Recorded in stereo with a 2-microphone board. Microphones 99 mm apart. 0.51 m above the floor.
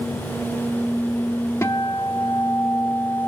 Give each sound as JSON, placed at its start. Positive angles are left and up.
{"t": 1.6, "sound": "a guitar", "side_deg": 25, "distance_m": 0.8}